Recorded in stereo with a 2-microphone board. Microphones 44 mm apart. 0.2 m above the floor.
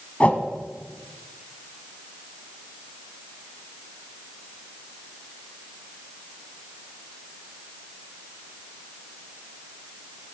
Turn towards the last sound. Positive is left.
turn(degrees=30)  # may be behind; listen again after turning